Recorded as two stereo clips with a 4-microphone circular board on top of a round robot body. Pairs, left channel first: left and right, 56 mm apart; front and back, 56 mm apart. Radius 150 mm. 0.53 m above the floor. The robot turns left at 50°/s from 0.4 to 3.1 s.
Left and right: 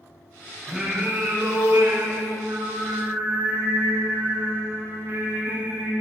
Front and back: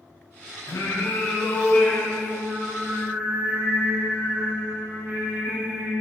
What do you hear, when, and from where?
0.7 s singing: 5° right, 6 m; by 5.9 s 125° right, 6 m